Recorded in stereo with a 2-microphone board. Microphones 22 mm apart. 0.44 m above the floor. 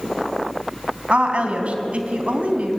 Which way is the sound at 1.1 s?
70° right (ahead or behind).